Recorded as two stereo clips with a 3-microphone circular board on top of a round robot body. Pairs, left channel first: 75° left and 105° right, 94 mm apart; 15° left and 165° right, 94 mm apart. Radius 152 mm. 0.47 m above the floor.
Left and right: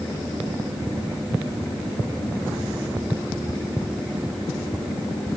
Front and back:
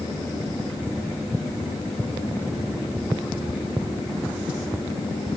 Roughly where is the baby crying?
No baby crying in this recording.